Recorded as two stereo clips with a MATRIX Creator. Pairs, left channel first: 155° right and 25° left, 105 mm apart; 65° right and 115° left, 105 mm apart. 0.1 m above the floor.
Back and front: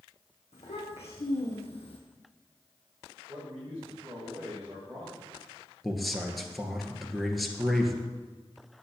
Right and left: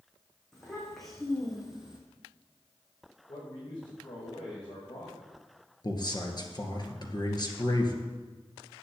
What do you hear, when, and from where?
0.5 s a child speaking: 155° right, 4 m; by 2.0 s 165° right, 2.5 m
3.3 s a man speaking: 55° right, 7 m
5.8 s a man speaking: 70° right, 2 m